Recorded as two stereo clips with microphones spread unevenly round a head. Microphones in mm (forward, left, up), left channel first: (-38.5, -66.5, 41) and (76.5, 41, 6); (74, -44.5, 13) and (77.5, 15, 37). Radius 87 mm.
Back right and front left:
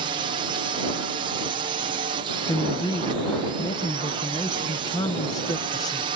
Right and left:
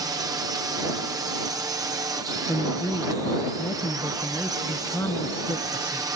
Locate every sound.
0.0 s a drone: 80° left
2.5 s a man speaking: straight behind